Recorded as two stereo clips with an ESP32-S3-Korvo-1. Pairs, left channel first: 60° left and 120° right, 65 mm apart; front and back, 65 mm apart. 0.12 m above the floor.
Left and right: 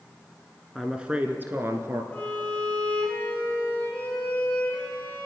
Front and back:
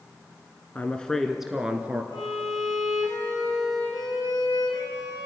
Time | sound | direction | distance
0.8 | a woman speaking | 40° right | 1.4 m
2.1 | a violin | 5° right | 8 m